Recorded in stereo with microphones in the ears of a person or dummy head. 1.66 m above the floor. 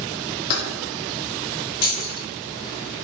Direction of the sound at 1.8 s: 45° left (ahead or behind).